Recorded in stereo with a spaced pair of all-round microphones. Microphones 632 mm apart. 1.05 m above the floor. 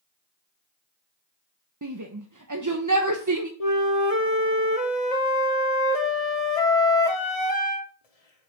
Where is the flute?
65° left (ahead or behind), 1.3 m.